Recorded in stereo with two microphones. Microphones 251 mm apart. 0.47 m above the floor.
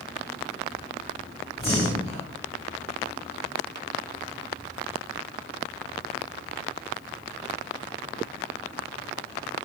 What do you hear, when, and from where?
1.6 s breathing: 25° left (ahead or behind), 1.9 m